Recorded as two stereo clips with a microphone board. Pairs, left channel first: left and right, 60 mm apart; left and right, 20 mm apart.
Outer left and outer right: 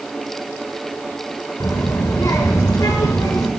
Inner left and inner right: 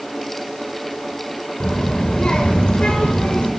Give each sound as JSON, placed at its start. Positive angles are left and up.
{"t": 1.6, "sound": "a child speaking", "side_deg": 70, "distance_m": 1.4}